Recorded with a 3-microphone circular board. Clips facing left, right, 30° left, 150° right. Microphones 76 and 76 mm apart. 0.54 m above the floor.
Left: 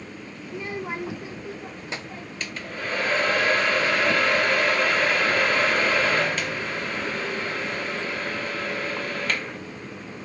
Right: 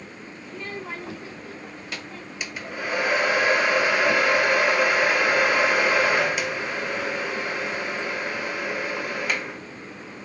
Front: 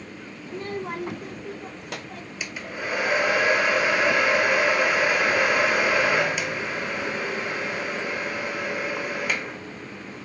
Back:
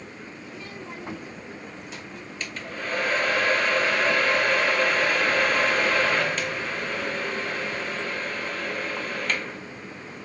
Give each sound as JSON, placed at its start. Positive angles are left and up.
{"t": 0.5, "sound": "a child speaking", "azimuth_deg": 15, "distance_m": 0.5}
{"t": 2.4, "sound": "a hair dryer", "azimuth_deg": -30, "distance_m": 1.1}